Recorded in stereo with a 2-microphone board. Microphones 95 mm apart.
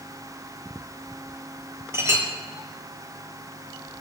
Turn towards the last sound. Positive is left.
turn(degrees=-30)  # may be behind; listen again after turning